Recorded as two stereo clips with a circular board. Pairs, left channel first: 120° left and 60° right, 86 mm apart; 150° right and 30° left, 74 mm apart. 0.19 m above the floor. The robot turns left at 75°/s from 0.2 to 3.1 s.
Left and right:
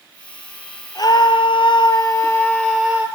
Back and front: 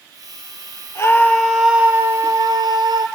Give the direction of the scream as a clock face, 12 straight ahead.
7 o'clock.